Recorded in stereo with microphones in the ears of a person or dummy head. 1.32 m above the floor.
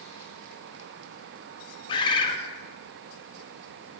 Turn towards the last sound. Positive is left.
turn(degrees=25)  # may be behind; listen again after turning